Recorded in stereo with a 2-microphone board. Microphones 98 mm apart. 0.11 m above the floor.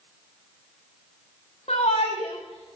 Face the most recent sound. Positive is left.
turn(degrees=80)